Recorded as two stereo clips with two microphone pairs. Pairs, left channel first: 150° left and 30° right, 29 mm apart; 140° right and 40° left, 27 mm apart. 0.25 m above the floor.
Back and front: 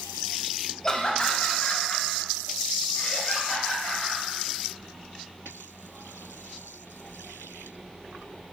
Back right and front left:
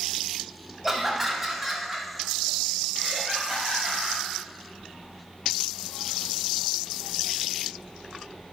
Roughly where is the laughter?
Behind left.